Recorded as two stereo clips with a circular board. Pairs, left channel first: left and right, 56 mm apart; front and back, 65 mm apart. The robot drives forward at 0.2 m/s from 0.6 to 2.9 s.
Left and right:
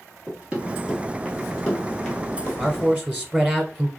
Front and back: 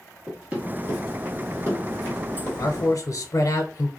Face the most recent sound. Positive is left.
turn(degrees=-15)